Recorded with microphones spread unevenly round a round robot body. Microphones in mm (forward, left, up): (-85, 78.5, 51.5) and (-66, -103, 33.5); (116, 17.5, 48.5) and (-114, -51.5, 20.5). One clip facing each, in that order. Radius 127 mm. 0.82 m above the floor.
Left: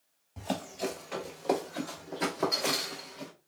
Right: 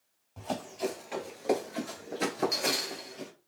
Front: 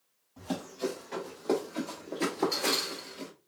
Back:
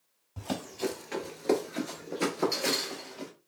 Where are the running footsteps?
170° left, 1.2 m; by 3.3 s 45° right, 1.1 m.